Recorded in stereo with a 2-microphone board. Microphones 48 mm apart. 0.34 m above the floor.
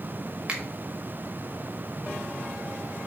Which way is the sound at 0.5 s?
25° right (ahead or behind).